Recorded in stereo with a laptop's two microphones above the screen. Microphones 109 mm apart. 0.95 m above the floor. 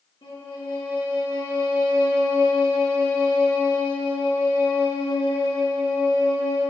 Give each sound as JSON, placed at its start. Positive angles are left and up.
{"t": 0.2, "sound": "a violin", "side_deg": 55, "distance_m": 3.0}